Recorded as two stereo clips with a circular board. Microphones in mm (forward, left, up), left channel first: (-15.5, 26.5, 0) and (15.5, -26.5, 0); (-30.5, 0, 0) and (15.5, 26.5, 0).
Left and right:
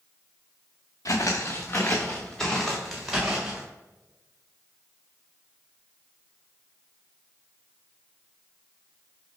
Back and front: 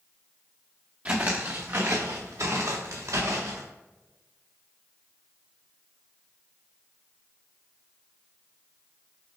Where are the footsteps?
95° left, 0.9 m; by 3.6 s 20° left, 1.5 m.